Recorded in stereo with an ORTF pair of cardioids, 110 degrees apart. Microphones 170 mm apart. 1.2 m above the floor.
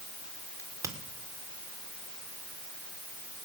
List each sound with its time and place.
0.6 s a crack: 15° right, 3.5 m